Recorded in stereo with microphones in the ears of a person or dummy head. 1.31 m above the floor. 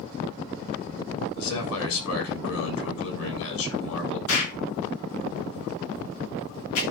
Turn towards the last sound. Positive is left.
turn(degrees=85)